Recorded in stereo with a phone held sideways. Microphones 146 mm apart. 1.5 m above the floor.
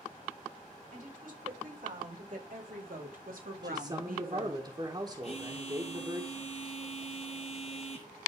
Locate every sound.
0.9 s a woman speaking: 65° right (ahead or behind), 6.5 m; by 4.6 s 85° right, 1.4 m
3.6 s a man speaking: 30° right (ahead or behind), 1.6 m
5.2 s a phone buzzing: 45° left (ahead or behind), 2.5 m